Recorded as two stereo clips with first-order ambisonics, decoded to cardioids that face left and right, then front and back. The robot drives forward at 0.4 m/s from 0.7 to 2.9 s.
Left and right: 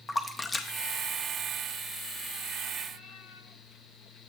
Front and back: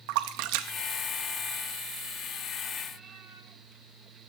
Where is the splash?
170° left, 0.5 m; by 2.0 s 175° left, 1.1 m.